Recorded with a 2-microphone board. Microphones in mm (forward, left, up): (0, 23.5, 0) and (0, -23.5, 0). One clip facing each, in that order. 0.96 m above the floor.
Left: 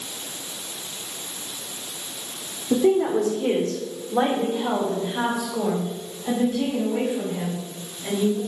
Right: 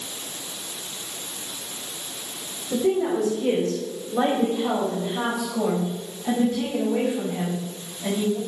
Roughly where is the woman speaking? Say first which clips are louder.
Left 3 dB; left.